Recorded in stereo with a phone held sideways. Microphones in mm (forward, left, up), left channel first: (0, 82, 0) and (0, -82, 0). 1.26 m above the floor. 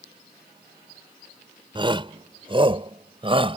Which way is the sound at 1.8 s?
30° right (ahead or behind).